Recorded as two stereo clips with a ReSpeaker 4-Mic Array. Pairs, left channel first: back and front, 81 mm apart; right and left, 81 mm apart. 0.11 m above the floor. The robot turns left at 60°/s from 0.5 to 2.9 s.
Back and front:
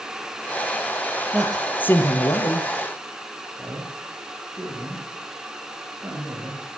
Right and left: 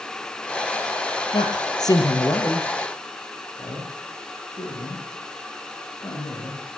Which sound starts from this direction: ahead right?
A man speaking, at 3.6 s.